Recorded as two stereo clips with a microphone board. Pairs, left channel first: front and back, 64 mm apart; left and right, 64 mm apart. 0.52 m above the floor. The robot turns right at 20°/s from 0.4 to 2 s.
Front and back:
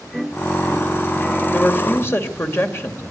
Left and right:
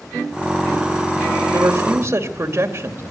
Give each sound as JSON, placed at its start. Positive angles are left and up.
{"t": 1.5, "sound": "a woman speaking", "azimuth_deg": -55, "distance_m": 2.5}